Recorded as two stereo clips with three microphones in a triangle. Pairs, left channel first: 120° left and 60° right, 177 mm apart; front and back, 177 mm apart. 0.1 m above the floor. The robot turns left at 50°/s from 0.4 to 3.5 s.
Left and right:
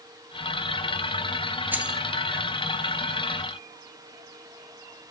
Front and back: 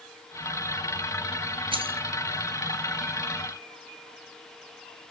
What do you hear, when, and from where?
1.7 s keys jangling: 135° right, 1.2 m; by 2.0 s 150° right, 1.2 m